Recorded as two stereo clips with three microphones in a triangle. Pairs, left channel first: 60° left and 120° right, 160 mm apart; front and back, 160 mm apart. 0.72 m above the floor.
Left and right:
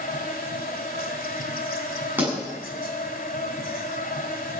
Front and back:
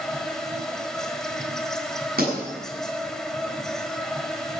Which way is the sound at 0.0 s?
85° left.